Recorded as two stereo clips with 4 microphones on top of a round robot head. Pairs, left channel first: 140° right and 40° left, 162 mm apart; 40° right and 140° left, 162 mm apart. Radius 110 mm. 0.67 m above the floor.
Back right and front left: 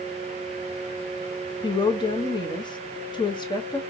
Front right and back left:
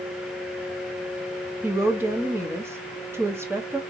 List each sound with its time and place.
1.6 s a woman speaking: 160° right, 1.0 m